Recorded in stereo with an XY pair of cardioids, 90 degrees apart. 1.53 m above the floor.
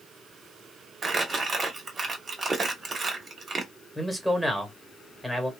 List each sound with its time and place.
1.0 s crumpling: 35° right, 1.1 m
4.0 s a man speaking: straight ahead, 1.4 m